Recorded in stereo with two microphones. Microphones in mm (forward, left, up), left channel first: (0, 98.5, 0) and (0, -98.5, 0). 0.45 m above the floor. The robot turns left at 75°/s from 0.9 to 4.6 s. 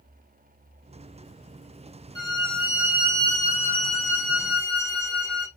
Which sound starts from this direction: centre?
A violin, at 2.1 s.